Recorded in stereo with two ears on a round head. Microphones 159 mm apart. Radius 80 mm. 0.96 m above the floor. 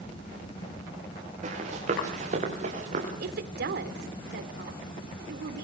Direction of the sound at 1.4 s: 40° right (ahead or behind).